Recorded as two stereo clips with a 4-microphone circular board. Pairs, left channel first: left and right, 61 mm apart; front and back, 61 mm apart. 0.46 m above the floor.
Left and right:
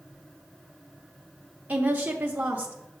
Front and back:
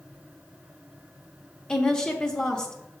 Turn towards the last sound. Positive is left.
turn(degrees=-55)